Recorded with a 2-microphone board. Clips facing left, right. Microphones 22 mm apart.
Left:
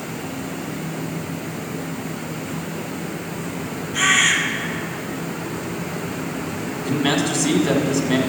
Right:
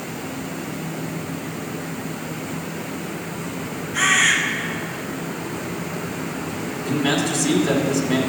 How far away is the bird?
About 2.5 m.